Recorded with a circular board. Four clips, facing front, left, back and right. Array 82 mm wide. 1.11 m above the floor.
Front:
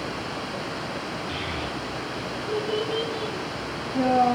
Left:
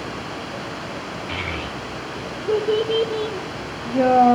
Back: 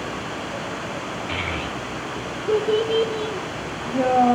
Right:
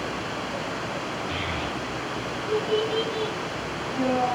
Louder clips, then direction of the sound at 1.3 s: Left 1 dB, back 3 dB; 145° left.